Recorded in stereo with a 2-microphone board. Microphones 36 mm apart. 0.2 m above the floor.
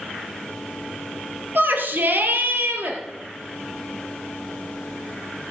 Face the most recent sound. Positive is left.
turn(degrees=-70)  # may be behind; listen again after turning